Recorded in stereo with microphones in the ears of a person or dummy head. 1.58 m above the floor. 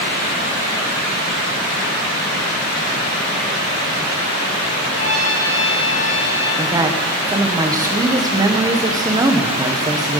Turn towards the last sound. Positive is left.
turn(degrees=-20)  # may be behind; listen again after turning